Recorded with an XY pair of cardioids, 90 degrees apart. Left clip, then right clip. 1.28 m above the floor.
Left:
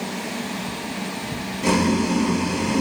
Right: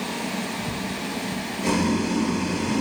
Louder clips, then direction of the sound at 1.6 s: Left 4 dB; 35° left.